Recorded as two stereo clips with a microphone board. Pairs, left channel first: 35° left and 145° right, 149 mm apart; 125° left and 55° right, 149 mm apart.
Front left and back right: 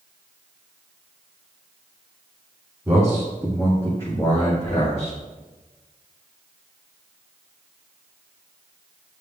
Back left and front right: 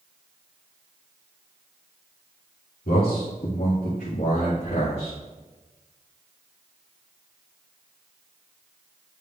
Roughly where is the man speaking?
Behind left.